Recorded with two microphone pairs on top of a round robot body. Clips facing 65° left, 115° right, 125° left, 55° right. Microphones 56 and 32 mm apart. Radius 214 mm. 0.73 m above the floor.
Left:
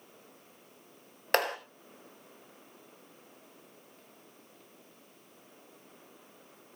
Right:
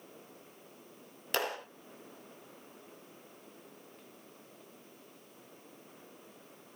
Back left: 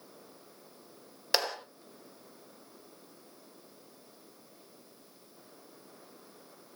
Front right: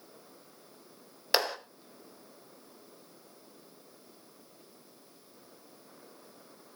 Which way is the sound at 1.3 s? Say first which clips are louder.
Left 6 dB, front right 2 dB; 30° left.